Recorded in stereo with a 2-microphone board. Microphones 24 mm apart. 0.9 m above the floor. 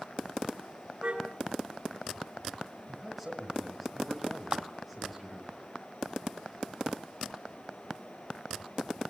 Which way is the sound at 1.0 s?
40° right (ahead or behind).